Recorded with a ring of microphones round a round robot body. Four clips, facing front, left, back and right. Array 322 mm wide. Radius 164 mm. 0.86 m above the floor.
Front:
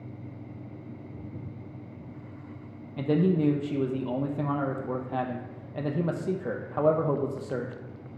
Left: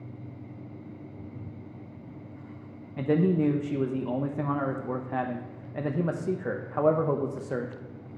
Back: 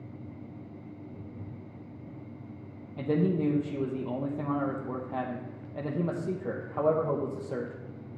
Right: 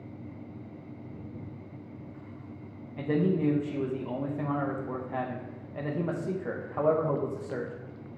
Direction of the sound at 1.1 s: 5° right.